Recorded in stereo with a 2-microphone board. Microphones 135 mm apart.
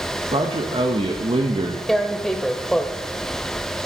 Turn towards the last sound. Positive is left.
turn(degrees=5)  # may be behind; listen again after turning